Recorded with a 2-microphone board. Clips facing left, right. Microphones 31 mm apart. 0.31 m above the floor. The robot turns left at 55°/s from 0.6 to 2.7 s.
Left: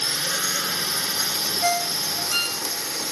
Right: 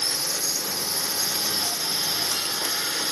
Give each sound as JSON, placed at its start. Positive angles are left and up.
{"t": 0.0, "sound": "a drone", "azimuth_deg": 65}
{"t": 1.6, "sound": "a ringtone", "side_deg": 85}